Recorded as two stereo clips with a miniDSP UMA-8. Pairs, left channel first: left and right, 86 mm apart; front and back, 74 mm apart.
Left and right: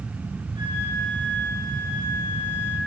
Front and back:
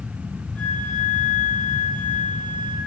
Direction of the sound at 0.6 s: 70° right.